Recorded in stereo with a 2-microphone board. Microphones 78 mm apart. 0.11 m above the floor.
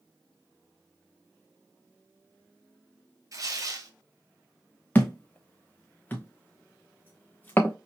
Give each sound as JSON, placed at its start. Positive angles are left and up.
{"t": 3.3, "sound": "tearing paper", "side_deg": -50, "distance_m": 0.6}
{"t": 5.0, "sound": "a thud", "side_deg": 25, "distance_m": 0.6}